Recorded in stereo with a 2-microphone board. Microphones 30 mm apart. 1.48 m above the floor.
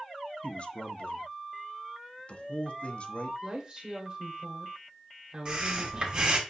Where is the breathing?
35° right (ahead or behind), 1.5 m.